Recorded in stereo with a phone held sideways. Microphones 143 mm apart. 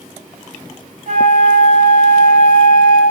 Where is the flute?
65° right (ahead or behind), 2 m.